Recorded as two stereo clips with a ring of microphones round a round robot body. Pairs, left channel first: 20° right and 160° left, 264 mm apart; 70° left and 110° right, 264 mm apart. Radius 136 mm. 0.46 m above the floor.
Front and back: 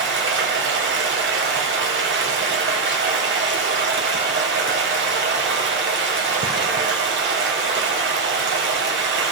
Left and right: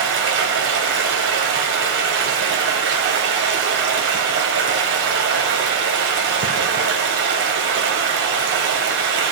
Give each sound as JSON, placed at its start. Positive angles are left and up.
{"t": 0.0, "sound": "running water", "azimuth_deg": -155, "distance_m": 1.4}